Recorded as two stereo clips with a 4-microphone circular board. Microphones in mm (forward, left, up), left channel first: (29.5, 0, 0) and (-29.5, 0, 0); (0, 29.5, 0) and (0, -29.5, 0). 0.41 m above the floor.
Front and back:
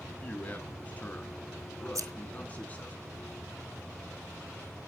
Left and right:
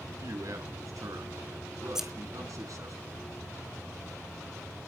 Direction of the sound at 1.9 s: 170° right.